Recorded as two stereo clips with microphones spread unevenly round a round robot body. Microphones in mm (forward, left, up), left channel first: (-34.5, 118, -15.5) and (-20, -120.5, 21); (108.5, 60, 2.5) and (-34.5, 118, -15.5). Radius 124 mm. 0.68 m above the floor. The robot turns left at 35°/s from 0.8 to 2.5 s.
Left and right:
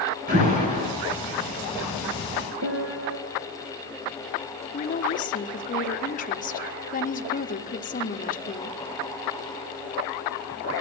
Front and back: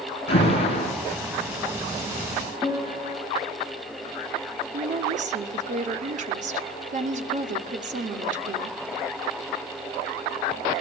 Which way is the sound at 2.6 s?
120° right.